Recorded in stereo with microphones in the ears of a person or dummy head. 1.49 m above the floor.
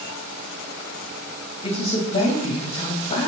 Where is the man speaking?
35° left (ahead or behind), 2 m.